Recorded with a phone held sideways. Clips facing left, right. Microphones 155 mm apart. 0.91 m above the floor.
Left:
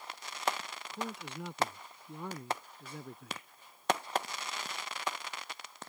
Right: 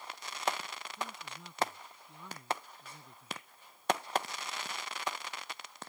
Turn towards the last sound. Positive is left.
turn(degrees=65)  # may be behind; listen again after turning